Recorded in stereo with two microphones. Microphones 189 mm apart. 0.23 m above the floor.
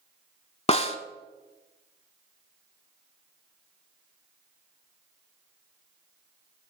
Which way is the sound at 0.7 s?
35° left (ahead or behind).